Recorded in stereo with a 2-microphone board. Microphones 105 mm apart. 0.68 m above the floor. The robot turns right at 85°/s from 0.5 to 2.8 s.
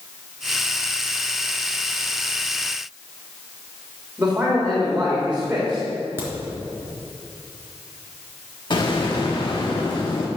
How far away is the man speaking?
About 2.5 m.